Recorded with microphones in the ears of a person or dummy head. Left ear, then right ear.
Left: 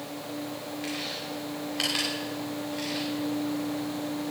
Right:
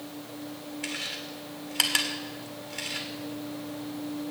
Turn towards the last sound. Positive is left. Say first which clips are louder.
# right 1 dB
turn(degrees=-40)  # may be behind; listen again after turning